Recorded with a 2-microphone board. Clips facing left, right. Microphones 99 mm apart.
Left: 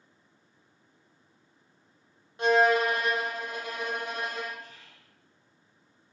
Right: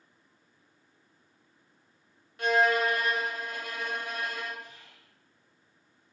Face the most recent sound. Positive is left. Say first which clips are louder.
# even
turn(degrees=-15)  # may be behind; listen again after turning